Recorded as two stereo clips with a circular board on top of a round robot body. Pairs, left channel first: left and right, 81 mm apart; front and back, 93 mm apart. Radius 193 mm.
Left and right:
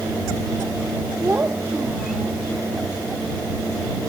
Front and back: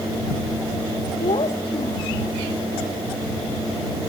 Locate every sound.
1.2 s a child speaking: 25° right